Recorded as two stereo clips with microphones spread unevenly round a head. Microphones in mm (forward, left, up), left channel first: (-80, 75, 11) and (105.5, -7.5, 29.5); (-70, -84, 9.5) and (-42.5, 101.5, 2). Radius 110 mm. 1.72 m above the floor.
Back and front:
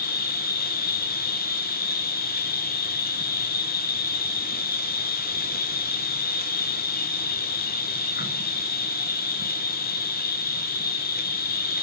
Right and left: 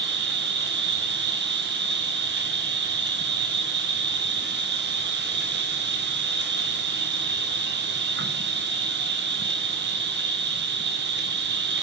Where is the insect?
110° left, 2 m.